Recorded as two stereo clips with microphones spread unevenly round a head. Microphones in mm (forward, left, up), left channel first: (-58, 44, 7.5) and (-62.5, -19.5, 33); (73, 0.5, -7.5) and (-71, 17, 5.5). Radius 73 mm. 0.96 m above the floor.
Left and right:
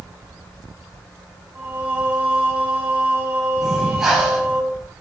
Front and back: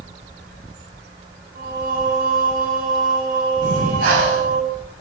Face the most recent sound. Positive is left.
turn(degrees=180)